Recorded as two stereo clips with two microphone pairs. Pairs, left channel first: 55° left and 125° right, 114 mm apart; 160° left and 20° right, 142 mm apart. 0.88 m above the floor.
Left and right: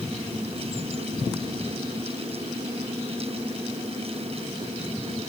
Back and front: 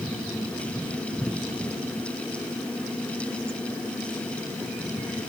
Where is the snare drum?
No snare drum in this recording.